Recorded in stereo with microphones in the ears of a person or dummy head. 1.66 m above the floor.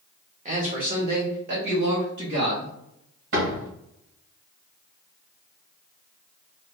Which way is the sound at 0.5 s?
30° right (ahead or behind).